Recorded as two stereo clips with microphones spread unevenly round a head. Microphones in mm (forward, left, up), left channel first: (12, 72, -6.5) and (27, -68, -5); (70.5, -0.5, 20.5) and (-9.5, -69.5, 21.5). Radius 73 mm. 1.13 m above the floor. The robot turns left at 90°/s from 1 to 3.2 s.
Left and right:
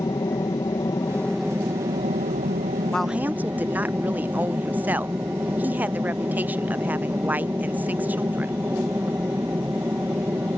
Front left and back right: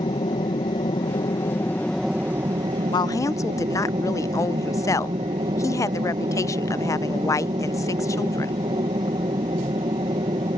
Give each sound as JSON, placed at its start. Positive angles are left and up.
{"t": 0.0, "sound": "an aircraft", "azimuth_deg": 40}
{"t": 2.9, "sound": "a woman speaking", "azimuth_deg": 20}